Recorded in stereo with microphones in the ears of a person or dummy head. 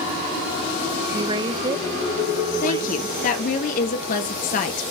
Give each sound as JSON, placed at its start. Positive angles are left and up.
{"t": 1.1, "sound": "a woman speaking", "side_deg": -25, "distance_m": 0.9}
{"t": 2.6, "sound": "a woman speaking", "side_deg": 50, "distance_m": 1.8}